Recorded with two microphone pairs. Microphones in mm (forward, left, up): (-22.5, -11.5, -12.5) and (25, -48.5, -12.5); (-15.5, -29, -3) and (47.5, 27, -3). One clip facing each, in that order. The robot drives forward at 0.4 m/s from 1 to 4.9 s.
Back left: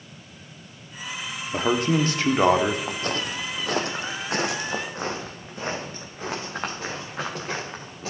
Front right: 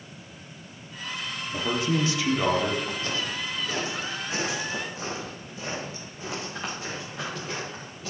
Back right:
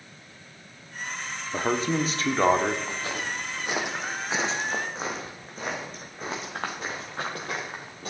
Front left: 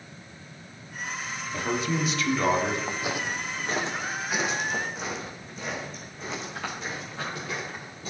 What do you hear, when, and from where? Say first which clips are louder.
1.5 s a man speaking: back left 5 dB, back right 3 dB; 175° left, 0.8 m; by 2.8 s straight behind, 1.3 m
2.9 s footsteps: back left 2 dB, front left 2 dB; 105° left, 1.2 m; by 8.1 s 170° right, 3.5 m